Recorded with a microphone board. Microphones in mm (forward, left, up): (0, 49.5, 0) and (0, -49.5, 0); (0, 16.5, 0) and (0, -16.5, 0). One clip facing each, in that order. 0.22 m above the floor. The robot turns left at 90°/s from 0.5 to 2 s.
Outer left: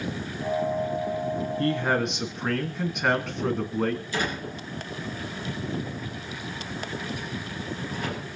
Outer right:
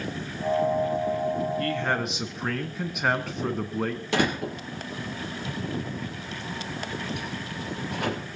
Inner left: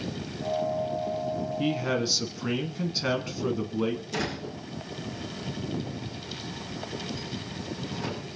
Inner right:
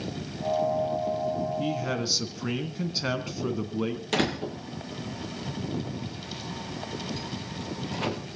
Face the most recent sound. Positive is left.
turn(degrees=-70)  # may be behind; listen again after turning